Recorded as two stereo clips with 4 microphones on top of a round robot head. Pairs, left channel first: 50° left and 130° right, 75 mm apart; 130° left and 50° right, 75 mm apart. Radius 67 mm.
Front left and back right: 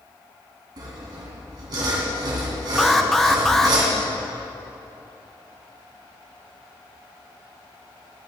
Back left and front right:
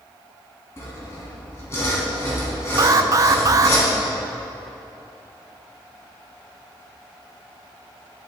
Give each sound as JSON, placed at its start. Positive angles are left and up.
{"t": 0.8, "sound": "sawing", "azimuth_deg": -170, "distance_m": 2.5}
{"t": 2.8, "sound": "an alarm", "azimuth_deg": -35, "distance_m": 0.7}